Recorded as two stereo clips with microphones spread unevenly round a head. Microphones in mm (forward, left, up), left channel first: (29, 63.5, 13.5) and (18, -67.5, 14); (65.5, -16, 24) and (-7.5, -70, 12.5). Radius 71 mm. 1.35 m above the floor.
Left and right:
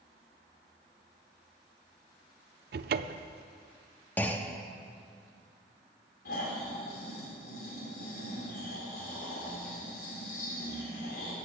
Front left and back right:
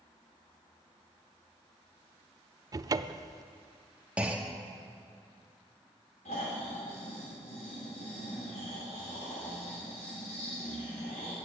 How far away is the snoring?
About 4 m.